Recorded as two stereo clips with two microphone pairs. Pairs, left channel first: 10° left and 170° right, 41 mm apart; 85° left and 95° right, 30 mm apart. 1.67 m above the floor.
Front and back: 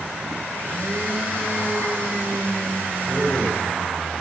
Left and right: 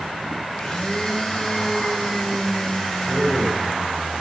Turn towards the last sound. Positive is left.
turn(degrees=-130)